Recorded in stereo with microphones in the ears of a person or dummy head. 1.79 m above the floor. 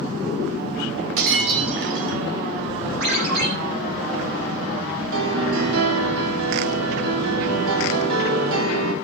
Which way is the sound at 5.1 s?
80° right.